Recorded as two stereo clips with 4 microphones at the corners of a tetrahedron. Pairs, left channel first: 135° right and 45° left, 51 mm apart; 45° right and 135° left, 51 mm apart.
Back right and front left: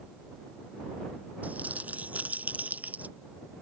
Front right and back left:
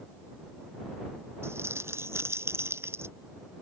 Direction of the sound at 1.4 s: 105° left.